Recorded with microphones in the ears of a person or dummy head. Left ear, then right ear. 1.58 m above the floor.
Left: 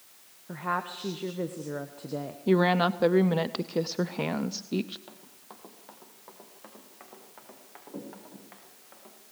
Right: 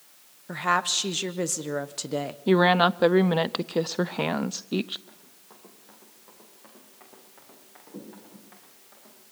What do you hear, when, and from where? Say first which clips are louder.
0.5 s a woman speaking: right 7 dB; 80° right, 1.0 m
2.5 s a woman speaking: right 4 dB; 30° right (ahead or behind), 0.6 m
5.1 s running footsteps: left 3 dB; 40° left (ahead or behind), 3 m; by 9.1 s 30° left (ahead or behind), 7.5 m